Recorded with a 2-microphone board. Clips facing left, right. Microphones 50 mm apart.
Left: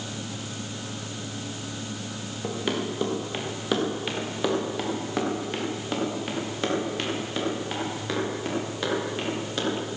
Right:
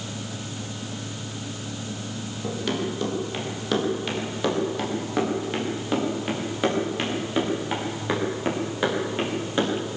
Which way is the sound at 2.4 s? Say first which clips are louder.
Right 1 dB; 15° left (ahead or behind).